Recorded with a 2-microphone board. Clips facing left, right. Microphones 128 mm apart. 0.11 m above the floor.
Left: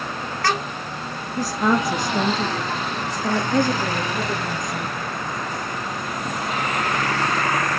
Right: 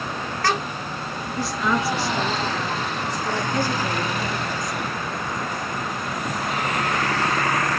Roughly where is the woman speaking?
Left.